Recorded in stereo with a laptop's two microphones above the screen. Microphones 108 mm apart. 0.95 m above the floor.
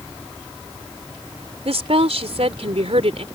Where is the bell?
I don't hear a bell.